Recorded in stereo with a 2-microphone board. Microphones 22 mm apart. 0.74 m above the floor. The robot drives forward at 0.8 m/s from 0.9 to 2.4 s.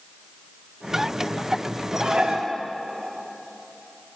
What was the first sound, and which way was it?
Dishes clattering, 45° right (ahead or behind).